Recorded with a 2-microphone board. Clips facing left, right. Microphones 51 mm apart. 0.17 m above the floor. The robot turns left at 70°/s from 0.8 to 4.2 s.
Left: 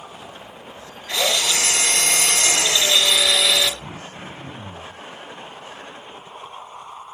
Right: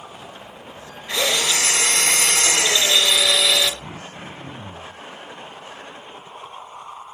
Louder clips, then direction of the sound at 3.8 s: Even; 10° left (ahead or behind).